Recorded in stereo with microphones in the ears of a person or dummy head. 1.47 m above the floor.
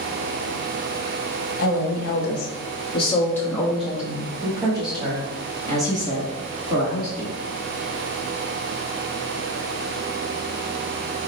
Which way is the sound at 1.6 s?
60° left (ahead or behind).